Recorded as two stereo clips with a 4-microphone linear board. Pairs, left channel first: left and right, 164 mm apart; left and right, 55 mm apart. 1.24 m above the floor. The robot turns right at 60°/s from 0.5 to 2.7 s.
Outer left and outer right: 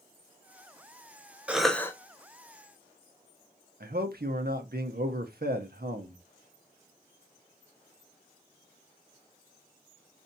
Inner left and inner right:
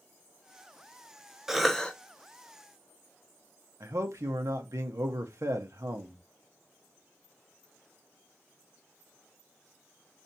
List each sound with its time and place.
1.5 s a cough: 10° right (ahead or behind), 0.9 m; by 1.9 s 20° left (ahead or behind), 0.9 m
3.8 s a man speaking: 70° right (ahead or behind), 0.8 m